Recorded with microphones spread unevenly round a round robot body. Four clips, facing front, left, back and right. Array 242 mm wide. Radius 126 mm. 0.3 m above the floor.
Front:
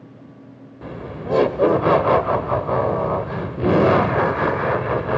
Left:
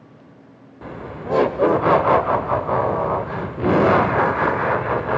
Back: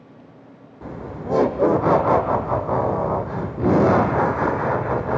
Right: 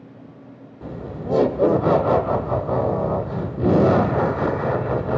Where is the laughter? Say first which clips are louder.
Even, front 1 dB; 20° right, 0.9 m.